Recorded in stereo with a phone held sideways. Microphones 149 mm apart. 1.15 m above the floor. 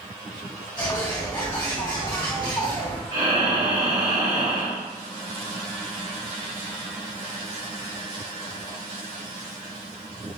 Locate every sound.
0.8 s a bird: 30° left (ahead or behind), 1.1 m
3.1 s breathing: 55° right (ahead or behind), 1.2 m